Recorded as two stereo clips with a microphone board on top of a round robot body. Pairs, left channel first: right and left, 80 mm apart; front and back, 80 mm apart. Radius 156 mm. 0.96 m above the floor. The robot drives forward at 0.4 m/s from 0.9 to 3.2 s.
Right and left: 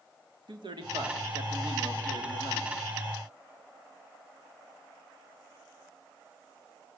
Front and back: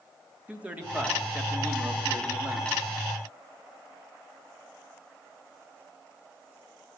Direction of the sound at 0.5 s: 105° left.